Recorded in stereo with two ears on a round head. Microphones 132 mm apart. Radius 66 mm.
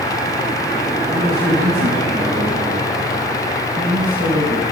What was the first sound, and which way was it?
A man speaking, 70° right (ahead or behind).